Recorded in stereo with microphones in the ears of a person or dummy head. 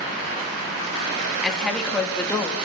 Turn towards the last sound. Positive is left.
turn(degrees=10)  # may be behind; listen again after turning